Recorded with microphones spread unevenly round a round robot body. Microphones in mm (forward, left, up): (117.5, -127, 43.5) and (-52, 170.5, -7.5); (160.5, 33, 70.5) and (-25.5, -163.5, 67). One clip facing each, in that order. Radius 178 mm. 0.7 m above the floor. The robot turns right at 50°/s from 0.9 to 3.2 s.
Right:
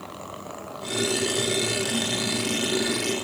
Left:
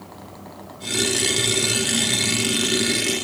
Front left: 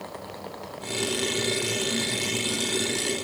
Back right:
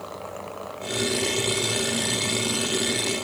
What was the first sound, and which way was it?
Only background noise.